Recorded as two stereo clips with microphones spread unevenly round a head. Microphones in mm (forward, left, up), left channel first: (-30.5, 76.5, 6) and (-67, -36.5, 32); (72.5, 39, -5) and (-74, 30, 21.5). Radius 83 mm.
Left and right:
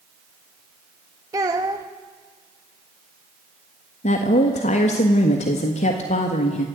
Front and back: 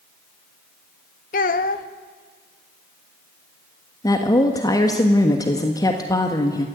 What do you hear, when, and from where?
1.3 s a child speaking: 35° right, 1.0 m
4.0 s a woman speaking: 65° left, 1.5 m